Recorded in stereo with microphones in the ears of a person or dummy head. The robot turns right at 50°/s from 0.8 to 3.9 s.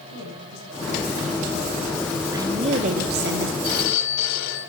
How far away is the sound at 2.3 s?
About 1.3 m.